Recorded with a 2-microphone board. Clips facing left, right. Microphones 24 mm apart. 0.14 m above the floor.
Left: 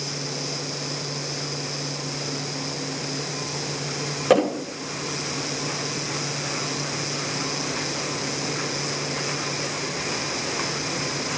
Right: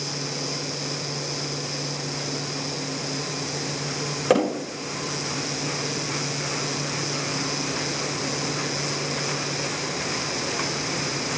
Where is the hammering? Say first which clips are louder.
Left 2 dB; centre (ahead or behind), 7.5 m.